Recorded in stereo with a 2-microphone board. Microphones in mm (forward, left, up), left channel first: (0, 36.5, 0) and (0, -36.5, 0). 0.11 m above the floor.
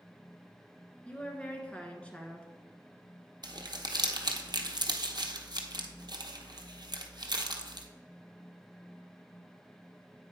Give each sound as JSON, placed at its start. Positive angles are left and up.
{"t": 1.1, "sound": "a woman speaking", "side_deg": 15, "distance_m": 1.1}
{"t": 3.4, "sound": "crumpling", "side_deg": -70, "distance_m": 0.8}